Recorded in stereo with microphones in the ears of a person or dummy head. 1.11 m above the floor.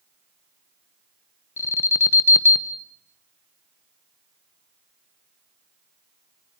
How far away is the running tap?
No running tap in this recording.